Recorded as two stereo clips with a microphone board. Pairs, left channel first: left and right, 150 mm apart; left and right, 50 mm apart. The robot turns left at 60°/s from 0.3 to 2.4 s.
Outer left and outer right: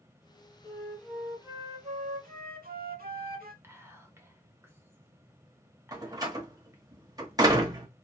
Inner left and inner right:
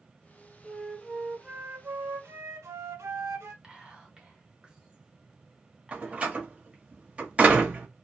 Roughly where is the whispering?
Centre.